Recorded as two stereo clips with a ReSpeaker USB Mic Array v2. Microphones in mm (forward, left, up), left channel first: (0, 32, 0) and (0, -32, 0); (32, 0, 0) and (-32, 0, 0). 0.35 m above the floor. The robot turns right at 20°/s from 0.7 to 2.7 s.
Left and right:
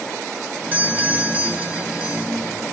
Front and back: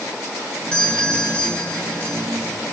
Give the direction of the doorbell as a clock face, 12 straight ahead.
2 o'clock.